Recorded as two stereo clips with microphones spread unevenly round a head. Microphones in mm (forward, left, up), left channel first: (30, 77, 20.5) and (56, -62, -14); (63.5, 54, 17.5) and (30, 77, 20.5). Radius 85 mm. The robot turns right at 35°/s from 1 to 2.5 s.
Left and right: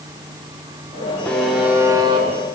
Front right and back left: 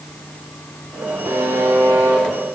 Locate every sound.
1.2 s a buzzer: straight behind, 3 m; by 2.3 s 145° right, 3 m